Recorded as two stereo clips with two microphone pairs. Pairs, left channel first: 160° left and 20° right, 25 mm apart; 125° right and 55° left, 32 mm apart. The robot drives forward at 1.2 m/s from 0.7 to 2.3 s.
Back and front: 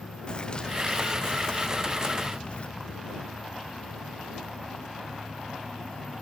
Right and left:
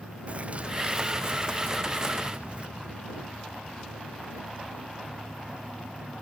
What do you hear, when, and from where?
0.3 s a bird: 105° left; by 2.7 s 115° left